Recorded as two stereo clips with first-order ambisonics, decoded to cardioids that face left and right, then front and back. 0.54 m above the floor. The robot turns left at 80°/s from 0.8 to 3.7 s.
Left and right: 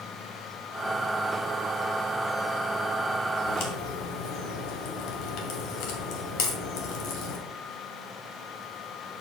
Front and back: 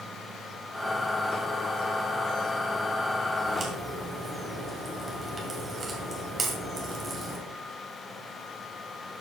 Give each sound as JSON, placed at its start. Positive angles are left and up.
{"t": 3.5, "sound": "a crack", "azimuth_deg": 130, "distance_m": 2.5}